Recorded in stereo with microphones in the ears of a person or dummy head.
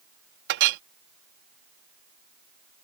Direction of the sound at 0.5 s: 60° right (ahead or behind).